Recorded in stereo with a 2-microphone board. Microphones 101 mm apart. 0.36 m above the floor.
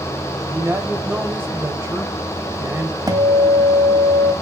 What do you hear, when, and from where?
0.5 s a man speaking: 25° right (ahead or behind), 1.4 m
3.1 s a guitar: 35° right (ahead or behind), 1.3 m